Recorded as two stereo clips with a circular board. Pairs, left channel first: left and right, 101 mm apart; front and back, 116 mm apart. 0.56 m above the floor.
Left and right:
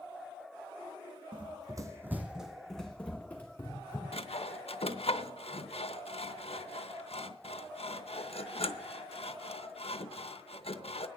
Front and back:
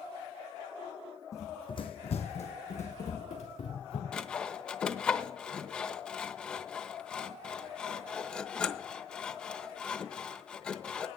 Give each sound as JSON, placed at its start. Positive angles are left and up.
{"t": 1.3, "sound": "running footsteps", "azimuth_deg": -60, "distance_m": 1.3}
{"t": 4.1, "sound": "sawing", "azimuth_deg": 80, "distance_m": 0.8}